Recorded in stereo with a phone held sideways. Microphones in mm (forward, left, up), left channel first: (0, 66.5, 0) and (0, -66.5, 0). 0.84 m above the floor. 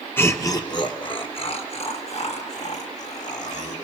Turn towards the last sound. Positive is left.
turn(degrees=60)  # may be behind; listen again after turning